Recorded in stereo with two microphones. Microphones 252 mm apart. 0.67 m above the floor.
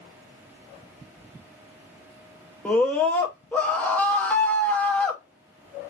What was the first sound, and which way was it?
A scream, 5° left (ahead or behind).